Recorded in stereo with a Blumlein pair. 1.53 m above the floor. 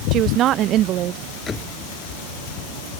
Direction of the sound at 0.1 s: 35° right.